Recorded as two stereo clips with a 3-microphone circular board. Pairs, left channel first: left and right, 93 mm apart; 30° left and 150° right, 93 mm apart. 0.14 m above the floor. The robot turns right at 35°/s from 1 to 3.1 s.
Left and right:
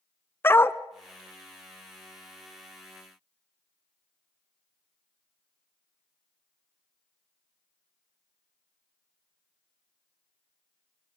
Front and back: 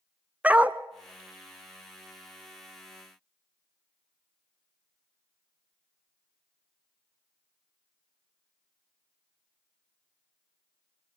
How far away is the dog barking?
About 0.6 m.